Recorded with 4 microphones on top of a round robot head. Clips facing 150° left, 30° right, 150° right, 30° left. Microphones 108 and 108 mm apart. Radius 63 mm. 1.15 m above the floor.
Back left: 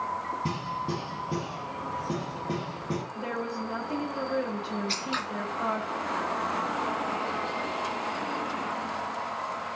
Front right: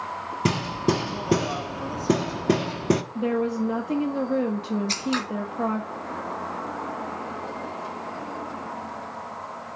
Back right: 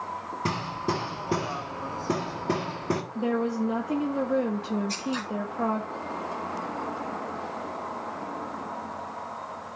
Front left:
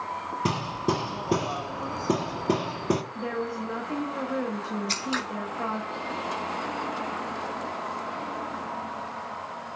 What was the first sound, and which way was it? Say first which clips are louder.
Hammering: front right 7 dB, front left 2 dB; 45° right.